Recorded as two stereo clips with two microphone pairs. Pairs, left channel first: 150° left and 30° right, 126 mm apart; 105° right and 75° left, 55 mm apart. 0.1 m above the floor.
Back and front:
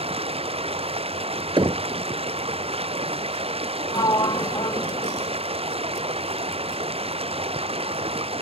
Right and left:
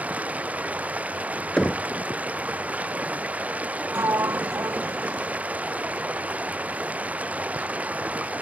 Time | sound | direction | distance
0.0 | running water | 10° left | ?
1.6 | knocking | 40° right | ?
3.9 | a sliding door | 100° left | ?